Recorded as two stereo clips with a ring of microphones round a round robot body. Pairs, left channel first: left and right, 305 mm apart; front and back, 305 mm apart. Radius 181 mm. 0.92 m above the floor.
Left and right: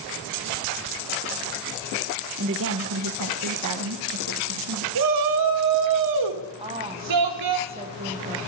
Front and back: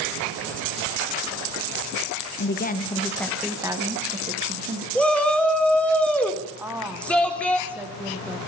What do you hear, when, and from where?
2.4 s a woman speaking: 45° right, 1.2 m; by 4.8 s 125° right, 2.0 m
5.0 s a shout: 85° right, 2.5 m
6.6 s a woman speaking: 105° right, 0.8 m